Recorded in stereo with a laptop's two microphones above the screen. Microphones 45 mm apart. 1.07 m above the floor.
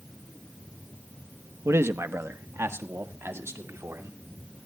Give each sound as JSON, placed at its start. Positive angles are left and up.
{"t": 1.6, "sound": "a man speaking", "side_deg": -85, "distance_m": 0.8}